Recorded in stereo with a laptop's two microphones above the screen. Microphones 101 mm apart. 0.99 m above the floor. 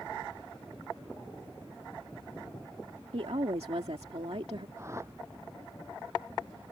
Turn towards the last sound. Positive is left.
turn(degrees=-30)  # may be behind; listen again after turning